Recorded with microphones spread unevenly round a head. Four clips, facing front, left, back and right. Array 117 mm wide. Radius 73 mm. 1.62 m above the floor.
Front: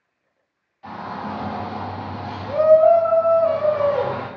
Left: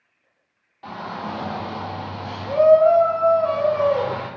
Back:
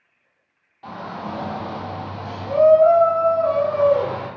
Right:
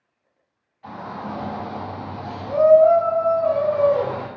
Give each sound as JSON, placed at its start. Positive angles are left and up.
{"t": 0.8, "sound": "a shout", "azimuth_deg": 105, "distance_m": 1.6}